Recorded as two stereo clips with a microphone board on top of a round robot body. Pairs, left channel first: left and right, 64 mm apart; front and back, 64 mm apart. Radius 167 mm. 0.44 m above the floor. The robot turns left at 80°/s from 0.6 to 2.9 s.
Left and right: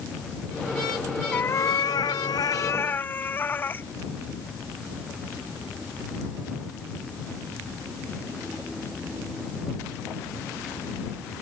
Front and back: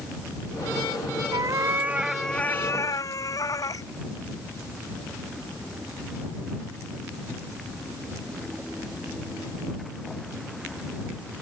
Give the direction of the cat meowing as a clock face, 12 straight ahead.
7 o'clock.